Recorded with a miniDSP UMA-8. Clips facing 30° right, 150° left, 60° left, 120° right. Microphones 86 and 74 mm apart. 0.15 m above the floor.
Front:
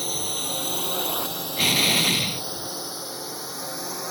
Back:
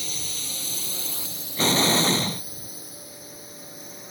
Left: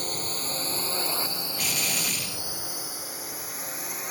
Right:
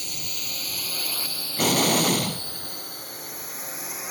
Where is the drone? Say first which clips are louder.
Front 8 dB, left 6 dB; 15° left; by 4.1 s 30° right.